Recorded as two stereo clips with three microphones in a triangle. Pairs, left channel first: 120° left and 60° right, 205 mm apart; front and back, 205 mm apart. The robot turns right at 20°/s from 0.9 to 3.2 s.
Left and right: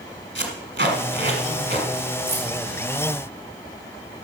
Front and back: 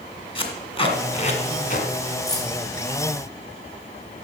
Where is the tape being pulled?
60° right, 1.9 m; by 1.9 s 40° right, 1.9 m.